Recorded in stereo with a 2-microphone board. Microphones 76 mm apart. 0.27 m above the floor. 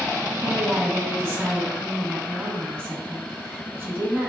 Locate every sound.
0.4 s a woman speaking: 40° right (ahead or behind), 1.8 m